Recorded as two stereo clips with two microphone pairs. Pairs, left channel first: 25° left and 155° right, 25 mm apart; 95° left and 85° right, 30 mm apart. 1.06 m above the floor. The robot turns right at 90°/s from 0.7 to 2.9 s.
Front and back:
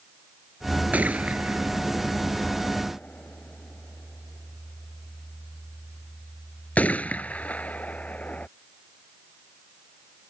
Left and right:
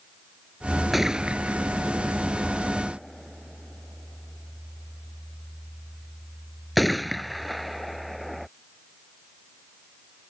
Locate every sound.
0.9 s a gunshot: 170° right; by 8.5 s 5° left